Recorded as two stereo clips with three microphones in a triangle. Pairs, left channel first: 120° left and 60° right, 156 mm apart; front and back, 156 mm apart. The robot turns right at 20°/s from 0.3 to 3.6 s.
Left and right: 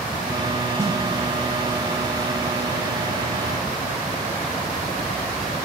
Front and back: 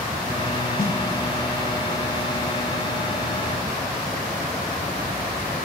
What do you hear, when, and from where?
0.8 s a snare drum: 15° left, 1.1 m